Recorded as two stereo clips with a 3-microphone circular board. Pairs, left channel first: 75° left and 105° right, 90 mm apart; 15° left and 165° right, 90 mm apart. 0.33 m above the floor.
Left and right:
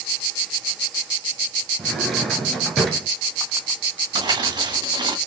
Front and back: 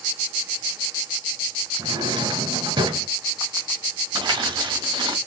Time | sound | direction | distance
1.8 | a drawer | 165° left | 1.7 m
4.2 | crumpling | 140° right | 1.7 m